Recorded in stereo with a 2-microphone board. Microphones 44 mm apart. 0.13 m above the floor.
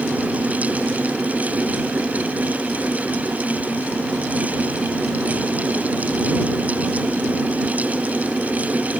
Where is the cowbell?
I don't hear a cowbell.